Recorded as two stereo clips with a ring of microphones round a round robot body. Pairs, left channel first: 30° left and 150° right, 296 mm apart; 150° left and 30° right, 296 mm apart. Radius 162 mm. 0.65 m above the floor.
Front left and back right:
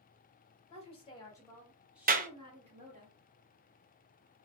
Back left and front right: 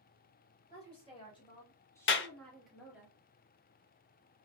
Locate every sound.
0.7 s a woman speaking: 90° left, 1.3 m; by 3.1 s 115° right, 1.2 m
2.1 s a clap: 165° left, 0.6 m